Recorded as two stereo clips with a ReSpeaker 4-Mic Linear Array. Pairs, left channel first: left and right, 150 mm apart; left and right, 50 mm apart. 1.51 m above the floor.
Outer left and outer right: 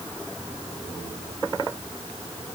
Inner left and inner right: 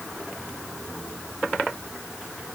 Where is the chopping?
I don't hear chopping.